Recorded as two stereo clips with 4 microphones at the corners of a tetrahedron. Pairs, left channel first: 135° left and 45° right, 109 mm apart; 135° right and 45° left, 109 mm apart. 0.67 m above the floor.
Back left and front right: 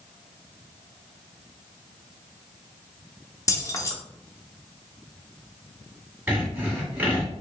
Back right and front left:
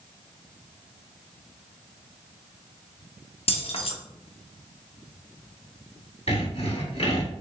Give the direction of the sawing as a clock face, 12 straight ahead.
4 o'clock.